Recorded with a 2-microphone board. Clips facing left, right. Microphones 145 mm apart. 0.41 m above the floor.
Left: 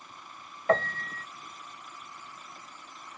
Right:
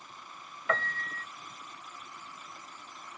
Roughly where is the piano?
Left.